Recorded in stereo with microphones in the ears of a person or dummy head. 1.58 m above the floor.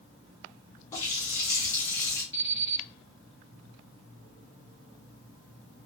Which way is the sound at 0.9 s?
15° left (ahead or behind).